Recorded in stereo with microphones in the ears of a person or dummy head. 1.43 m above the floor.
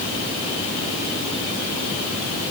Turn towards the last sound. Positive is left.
No sound to turn to.